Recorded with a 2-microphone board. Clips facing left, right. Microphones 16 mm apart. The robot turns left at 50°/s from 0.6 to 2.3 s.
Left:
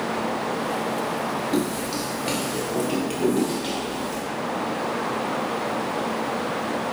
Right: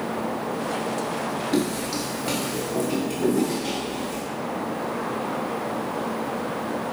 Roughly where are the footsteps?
Centre.